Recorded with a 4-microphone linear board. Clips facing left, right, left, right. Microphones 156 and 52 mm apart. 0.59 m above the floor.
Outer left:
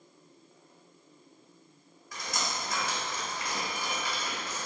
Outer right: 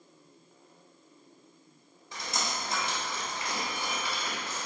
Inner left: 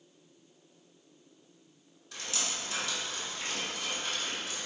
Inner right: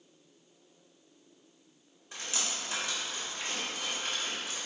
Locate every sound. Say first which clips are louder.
2.1 s dripping: even, even; 25° right (ahead or behind), 1.4 m